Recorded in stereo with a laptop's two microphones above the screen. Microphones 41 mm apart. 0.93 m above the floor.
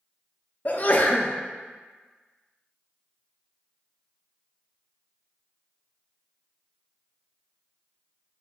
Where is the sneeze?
45° left (ahead or behind), 0.5 m.